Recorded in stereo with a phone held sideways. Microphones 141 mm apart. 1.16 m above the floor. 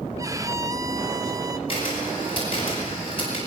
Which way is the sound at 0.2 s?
20° right (ahead or behind).